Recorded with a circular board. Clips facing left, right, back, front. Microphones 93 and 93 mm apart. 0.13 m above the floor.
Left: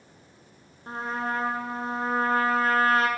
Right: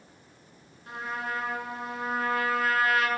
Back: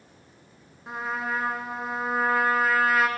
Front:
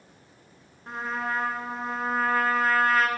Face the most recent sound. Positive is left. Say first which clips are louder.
# left 4 dB, even
turn(degrees=100)